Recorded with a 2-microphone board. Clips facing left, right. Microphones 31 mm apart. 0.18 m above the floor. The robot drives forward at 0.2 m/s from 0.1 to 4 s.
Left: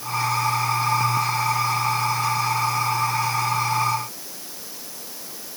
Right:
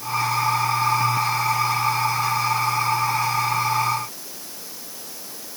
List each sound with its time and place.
Only background noise.